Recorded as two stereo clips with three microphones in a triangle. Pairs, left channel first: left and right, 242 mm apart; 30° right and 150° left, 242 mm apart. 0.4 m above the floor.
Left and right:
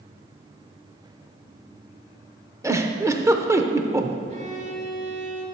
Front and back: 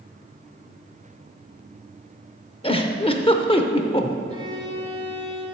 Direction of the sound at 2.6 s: 30° right.